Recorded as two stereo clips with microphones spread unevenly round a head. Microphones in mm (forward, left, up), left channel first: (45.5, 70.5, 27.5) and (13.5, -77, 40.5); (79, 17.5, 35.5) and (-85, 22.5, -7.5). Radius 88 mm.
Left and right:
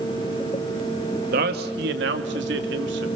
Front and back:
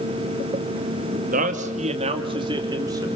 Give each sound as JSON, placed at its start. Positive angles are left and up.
{"t": 1.3, "sound": "a man speaking", "azimuth_deg": -140, "distance_m": 2.0}